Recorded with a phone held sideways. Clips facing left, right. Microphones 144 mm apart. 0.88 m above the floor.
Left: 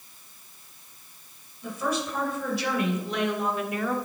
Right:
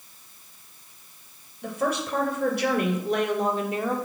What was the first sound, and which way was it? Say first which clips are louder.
A woman speaking: right 2 dB; 75° right (ahead or behind).